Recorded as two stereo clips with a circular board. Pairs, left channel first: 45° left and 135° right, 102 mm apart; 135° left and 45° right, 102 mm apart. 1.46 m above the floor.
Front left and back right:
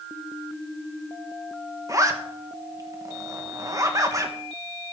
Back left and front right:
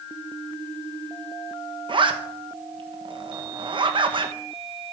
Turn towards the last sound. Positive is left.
turn(degrees=-80)